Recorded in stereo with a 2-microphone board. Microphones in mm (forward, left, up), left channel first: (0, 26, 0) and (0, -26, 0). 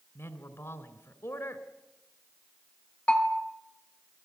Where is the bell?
25° left (ahead or behind), 2.5 m.